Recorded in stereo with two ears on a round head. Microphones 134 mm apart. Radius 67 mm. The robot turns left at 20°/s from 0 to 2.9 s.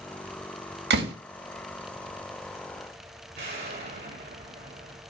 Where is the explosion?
75° right (ahead or behind), 3.5 m.